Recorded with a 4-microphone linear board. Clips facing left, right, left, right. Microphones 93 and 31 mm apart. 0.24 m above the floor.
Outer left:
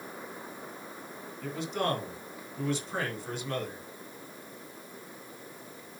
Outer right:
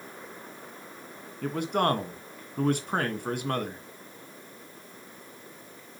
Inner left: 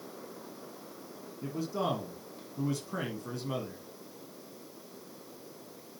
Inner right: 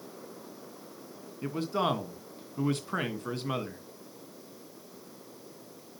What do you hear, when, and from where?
1.4 s a man speaking: 55° right (ahead or behind), 2.5 m